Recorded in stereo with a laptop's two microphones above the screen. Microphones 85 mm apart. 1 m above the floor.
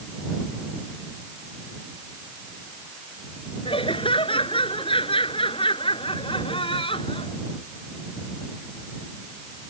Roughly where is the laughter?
Left.